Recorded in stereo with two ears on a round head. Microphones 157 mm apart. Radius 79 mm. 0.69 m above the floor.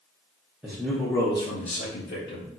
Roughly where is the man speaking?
Centre.